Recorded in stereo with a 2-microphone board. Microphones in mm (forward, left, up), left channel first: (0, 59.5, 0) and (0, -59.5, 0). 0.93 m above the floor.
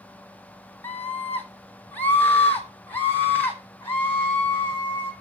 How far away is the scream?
About 2.5 m.